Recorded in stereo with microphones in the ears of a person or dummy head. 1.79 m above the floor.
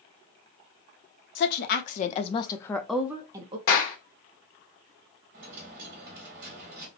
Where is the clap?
50° left (ahead or behind), 1.5 m.